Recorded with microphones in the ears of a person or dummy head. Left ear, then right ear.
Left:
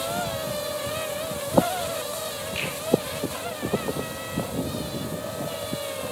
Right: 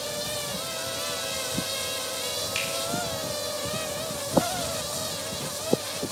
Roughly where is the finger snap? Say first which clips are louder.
Left 1 dB; right.